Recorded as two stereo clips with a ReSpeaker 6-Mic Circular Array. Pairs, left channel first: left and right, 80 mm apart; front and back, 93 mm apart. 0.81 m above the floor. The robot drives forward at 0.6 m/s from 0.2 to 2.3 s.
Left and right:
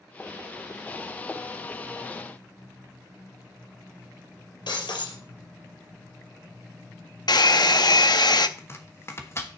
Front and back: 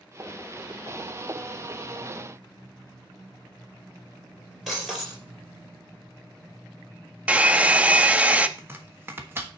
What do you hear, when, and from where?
4.7 s breaking glass: 95° left, 4 m
7.3 s a hair dryer: 105° left, 0.6 m
8.6 s chopping: 125° left, 1.4 m